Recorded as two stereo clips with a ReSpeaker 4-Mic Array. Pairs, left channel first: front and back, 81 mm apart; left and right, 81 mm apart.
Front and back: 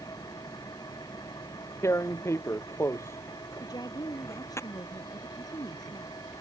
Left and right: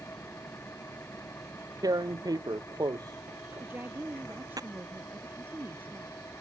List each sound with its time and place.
0.0 s an engine running: 35° left
1.8 s tearing paper: 55° right
3.6 s a woman speaking: 25° right